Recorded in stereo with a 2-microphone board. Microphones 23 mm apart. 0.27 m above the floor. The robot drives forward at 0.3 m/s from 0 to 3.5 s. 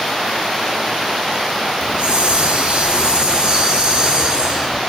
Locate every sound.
1.8 s a hiss: 50° right (ahead or behind), 0.5 m; by 4.8 s 40° right (ahead or behind), 0.6 m